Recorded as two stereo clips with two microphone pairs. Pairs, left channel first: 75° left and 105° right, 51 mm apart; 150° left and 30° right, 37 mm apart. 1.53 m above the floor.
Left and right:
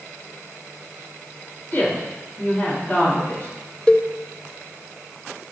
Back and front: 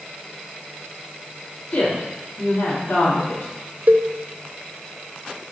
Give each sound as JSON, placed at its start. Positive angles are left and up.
{"t": 1.7, "sound": "a woman speaking", "azimuth_deg": 135, "distance_m": 3.5}
{"t": 3.9, "sound": "a cowbell", "azimuth_deg": 5, "distance_m": 0.6}